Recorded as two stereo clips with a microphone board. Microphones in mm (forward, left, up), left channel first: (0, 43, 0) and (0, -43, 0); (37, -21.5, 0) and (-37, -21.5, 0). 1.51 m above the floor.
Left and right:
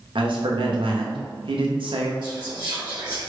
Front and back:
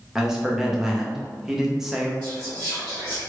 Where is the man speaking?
95° right, 0.7 m.